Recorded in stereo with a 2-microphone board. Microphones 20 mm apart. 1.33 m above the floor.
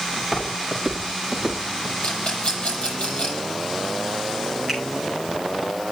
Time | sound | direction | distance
0.2 | footsteps | 15° right (ahead or behind) | 7.5 m
2.0 | a rattle | 65° left (ahead or behind) | 6.5 m
4.7 | a finger snap | centre (ahead or behind) | 6 m